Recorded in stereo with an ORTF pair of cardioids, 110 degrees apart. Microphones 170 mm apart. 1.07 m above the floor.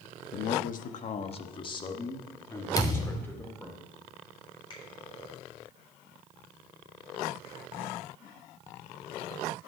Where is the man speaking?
70° left, 1.1 m; by 3.8 s 10° left, 3 m.